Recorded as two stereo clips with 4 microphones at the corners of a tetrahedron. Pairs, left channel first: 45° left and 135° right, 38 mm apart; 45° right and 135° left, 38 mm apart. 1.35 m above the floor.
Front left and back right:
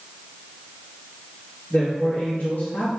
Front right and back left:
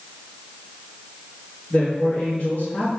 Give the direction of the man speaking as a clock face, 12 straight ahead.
12 o'clock.